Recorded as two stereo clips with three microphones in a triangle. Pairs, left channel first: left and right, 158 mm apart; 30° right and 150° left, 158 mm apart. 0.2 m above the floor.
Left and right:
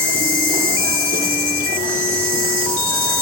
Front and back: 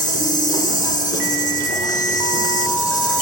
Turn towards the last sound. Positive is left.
turn(degrees=-60)